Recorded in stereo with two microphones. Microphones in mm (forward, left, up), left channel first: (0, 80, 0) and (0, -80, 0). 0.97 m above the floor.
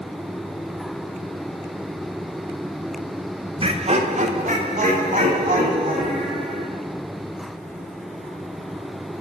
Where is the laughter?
35° right (ahead or behind), 0.7 m; by 6.7 s 55° right (ahead or behind), 2 m.